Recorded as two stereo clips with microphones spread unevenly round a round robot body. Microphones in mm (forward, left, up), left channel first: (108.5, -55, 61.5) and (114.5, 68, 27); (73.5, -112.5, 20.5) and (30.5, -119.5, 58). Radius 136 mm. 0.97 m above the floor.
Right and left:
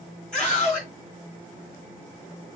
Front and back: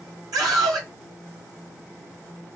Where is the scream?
170° left, 1.0 m.